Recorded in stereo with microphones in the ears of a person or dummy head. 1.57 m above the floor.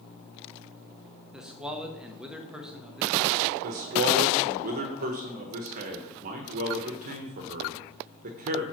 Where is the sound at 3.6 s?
45° right (ahead or behind), 1.1 m.